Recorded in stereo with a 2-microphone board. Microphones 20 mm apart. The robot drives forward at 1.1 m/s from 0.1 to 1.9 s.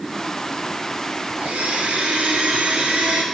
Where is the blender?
80° right, 2.5 m; by 3.2 s 75° right (ahead or behind), 2.5 m.